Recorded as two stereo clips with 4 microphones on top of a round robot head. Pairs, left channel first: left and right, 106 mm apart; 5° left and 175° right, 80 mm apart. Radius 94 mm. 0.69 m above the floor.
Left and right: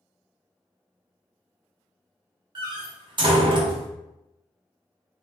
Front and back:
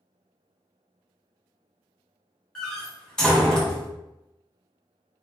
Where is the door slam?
75° right, 0.9 m.